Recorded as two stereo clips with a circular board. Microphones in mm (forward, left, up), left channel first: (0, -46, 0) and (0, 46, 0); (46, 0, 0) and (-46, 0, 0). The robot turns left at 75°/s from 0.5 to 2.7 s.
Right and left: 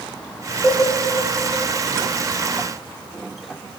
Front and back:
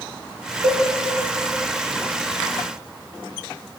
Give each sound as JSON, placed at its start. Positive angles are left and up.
{"t": 0.6, "sound": "a cowbell", "azimuth_deg": 180, "distance_m": 1.1}